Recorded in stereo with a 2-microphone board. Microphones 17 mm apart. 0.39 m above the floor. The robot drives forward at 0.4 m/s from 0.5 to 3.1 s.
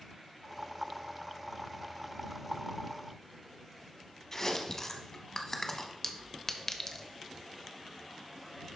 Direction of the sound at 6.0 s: 25° left (ahead or behind).